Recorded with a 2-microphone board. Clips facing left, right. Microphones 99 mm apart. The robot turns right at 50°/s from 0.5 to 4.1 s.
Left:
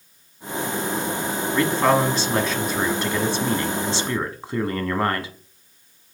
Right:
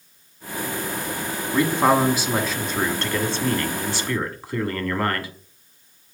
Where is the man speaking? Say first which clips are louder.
Right 1 dB; 20° right (ahead or behind), 1.1 m; by 5.3 s 25° left (ahead or behind), 1.1 m.